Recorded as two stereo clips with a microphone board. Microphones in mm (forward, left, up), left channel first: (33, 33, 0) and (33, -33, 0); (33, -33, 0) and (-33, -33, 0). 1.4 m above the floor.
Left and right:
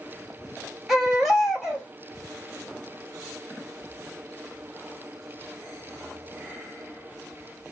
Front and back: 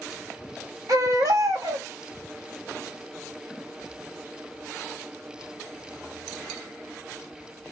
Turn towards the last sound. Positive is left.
turn(degrees=-175)